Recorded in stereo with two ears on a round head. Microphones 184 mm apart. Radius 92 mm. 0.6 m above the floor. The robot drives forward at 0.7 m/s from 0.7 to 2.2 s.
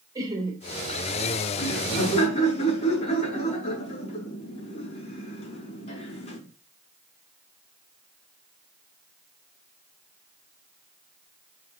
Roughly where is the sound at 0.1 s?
Centre.